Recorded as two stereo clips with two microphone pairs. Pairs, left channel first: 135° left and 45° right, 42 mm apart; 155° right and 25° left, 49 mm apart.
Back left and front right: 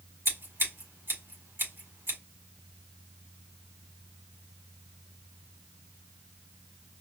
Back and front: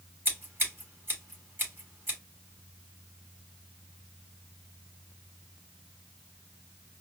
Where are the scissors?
25° right, 4 m.